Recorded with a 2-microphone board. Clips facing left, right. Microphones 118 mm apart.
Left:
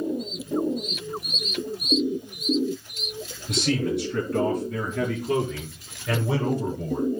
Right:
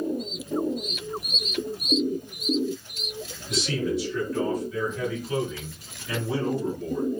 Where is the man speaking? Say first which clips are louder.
Left 2 dB; 60° left (ahead or behind), 5.5 m; by 7.2 s 80° left, 5 m.